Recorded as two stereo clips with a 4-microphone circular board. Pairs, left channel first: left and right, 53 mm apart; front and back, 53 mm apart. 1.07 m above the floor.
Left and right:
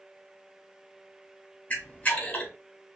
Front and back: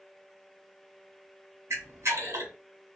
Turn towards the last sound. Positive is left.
turn(degrees=150)